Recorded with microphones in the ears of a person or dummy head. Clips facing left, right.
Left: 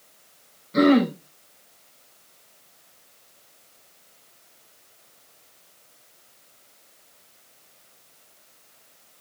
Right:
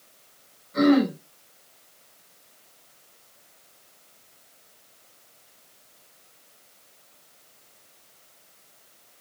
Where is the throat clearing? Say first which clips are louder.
Left 1 dB; 50° left (ahead or behind), 5 m.